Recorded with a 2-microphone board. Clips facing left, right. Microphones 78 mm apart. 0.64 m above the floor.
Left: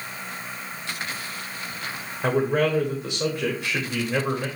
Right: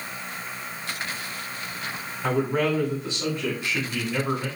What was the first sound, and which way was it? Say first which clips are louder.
A man speaking: left 2 dB; 60° left (ahead or behind).